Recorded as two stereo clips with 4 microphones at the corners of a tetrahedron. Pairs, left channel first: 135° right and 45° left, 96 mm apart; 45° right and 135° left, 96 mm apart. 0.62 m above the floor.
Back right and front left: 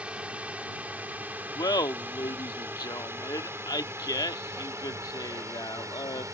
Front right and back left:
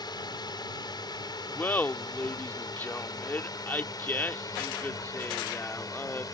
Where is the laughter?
110° right.